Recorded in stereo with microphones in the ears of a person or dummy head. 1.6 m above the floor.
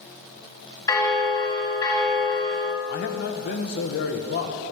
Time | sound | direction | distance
0.9 | a bell | 20° left (ahead or behind) | 1.9 m
2.9 | a man speaking | 60° left (ahead or behind) | 1.5 m